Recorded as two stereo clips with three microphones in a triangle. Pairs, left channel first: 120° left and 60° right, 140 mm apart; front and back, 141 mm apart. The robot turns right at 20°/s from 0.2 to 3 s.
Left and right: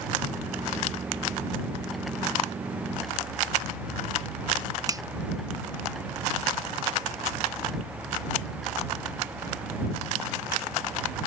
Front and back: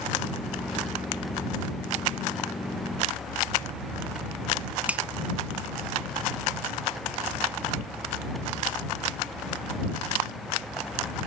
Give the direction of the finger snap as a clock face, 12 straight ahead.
4 o'clock.